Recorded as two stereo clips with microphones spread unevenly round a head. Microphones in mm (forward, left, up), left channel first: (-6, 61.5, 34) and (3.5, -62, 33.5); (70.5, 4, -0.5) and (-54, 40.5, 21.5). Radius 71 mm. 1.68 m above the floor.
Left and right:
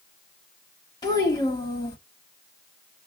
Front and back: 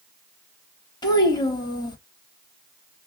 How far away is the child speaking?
About 1.3 m.